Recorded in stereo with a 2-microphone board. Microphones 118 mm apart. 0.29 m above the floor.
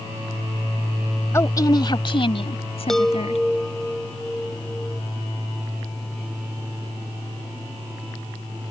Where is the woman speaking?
25° left (ahead or behind); by 3.4 s 65° left (ahead or behind).